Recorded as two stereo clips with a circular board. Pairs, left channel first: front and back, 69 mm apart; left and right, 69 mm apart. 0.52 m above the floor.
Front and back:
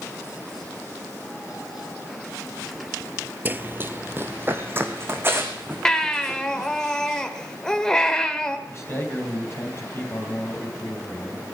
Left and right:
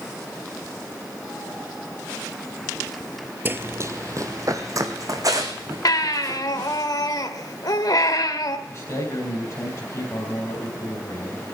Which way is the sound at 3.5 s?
135° right.